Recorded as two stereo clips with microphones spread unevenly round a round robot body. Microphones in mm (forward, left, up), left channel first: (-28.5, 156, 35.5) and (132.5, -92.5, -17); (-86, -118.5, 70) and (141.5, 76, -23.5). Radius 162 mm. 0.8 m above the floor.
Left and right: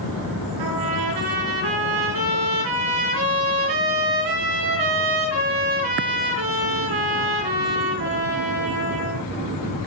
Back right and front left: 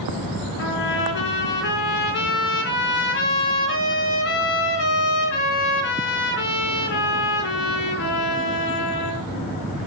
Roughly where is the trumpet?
Right.